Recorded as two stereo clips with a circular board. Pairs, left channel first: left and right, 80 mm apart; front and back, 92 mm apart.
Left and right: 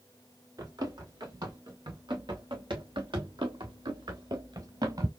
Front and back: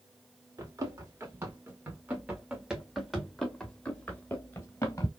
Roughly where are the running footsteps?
Behind right.